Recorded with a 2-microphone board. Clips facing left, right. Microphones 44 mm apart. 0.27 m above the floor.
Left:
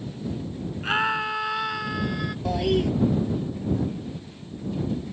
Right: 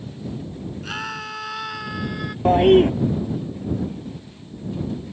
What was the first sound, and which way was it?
A scream, 25° left (ahead or behind).